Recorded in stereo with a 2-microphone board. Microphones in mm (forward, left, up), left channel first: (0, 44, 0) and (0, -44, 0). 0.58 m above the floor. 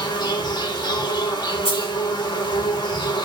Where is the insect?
50° left (ahead or behind), 0.8 m.